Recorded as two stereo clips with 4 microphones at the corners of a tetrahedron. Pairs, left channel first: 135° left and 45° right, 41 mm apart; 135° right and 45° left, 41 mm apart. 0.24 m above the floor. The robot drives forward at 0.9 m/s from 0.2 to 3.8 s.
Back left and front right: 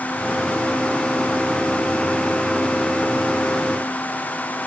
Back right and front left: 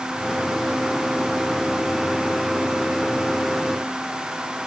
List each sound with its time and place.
Only background noise.